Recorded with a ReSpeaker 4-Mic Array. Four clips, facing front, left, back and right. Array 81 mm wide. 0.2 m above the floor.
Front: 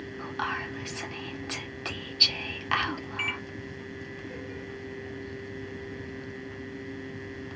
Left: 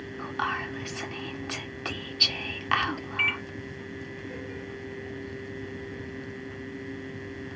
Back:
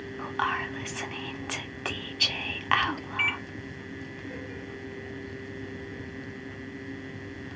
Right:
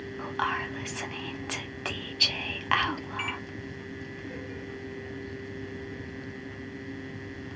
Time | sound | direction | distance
0.2 | whispering | 160° right | 1.2 m
3.2 | a microwave | 120° left | 0.8 m